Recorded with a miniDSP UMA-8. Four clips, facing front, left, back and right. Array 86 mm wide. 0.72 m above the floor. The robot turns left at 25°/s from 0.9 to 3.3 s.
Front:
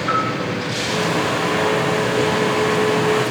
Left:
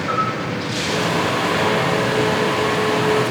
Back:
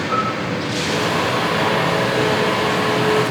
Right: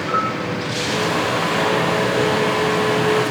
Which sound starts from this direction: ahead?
A bell, at 0.1 s.